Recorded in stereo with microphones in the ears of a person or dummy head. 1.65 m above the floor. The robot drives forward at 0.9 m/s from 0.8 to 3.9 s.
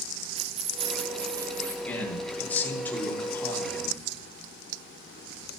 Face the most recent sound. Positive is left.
turn(degrees=15)  # may be behind; listen again after turning